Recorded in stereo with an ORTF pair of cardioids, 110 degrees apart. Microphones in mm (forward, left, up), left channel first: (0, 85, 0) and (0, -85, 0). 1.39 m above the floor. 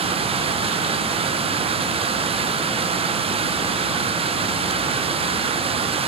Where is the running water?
35° right, 0.9 m.